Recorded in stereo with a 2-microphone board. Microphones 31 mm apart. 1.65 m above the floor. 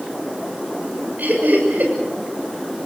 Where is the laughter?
65° right (ahead or behind), 7 m.